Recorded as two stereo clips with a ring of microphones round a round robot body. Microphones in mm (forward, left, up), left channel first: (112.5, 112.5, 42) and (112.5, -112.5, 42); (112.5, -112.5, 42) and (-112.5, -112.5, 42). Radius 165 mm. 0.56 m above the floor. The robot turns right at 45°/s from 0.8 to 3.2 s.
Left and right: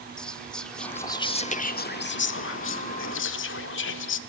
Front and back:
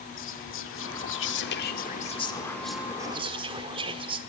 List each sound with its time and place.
0.2 s whispering: 5° left, 1.4 m; by 4.2 s 110° left, 1.4 m